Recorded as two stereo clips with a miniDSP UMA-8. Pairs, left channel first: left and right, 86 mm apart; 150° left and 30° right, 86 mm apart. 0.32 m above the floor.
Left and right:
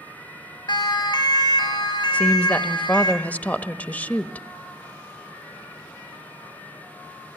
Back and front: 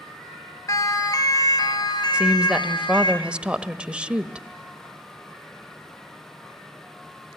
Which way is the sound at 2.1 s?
35° left.